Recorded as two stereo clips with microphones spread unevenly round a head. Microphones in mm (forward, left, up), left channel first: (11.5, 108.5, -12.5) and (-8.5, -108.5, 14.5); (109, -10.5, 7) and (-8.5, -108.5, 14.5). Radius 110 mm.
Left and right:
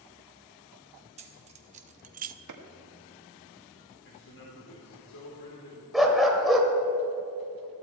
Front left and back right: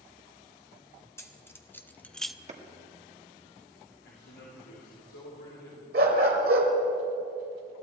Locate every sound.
1.2 s keys jangling: 35° right, 1.6 m; by 2.4 s 55° right, 0.5 m
2.5 s a clap: 95° right, 1.8 m
4.0 s a man speaking: 50° left, 3 m
5.9 s a dog barking: straight behind, 1.7 m